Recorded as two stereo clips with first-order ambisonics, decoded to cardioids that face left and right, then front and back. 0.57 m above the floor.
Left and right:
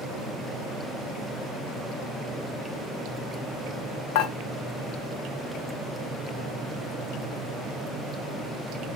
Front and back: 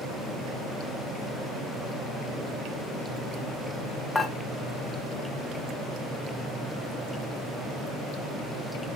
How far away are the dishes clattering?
About 1.1 m.